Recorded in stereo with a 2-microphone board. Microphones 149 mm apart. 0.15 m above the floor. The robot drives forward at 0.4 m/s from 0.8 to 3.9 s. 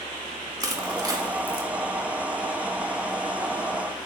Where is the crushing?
25° right (ahead or behind), 0.8 m; by 1.7 s 20° right (ahead or behind), 0.8 m.